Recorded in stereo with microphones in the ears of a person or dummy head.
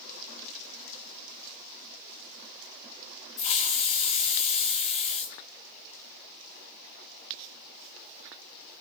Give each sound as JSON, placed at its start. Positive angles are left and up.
{"t": 3.4, "sound": "a hiss", "side_deg": 35, "distance_m": 1.3}